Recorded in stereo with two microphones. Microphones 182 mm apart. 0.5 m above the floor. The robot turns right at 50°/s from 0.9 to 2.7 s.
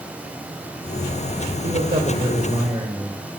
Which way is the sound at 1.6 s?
90° right.